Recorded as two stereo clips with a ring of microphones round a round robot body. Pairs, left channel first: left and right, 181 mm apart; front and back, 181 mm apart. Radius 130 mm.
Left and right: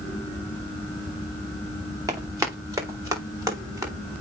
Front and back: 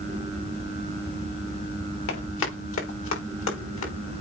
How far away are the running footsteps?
About 4 m.